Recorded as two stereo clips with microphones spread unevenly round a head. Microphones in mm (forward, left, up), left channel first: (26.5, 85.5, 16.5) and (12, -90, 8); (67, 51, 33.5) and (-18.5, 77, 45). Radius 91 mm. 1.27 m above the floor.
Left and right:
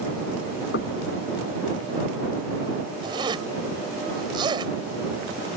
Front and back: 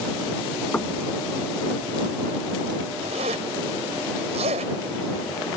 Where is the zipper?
165° right.